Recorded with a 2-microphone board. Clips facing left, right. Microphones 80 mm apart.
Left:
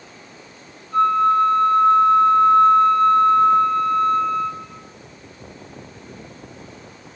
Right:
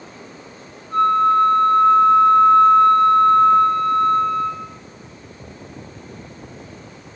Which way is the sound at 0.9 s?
60° right (ahead or behind).